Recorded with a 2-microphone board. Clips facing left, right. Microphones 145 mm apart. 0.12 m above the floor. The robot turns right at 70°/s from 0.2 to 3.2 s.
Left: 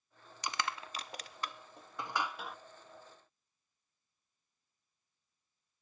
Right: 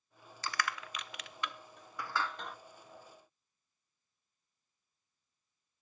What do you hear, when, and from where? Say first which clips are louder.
0.4 s crushing: even; 20° left (ahead or behind), 0.7 m; by 2.6 s centre (ahead or behind), 0.7 m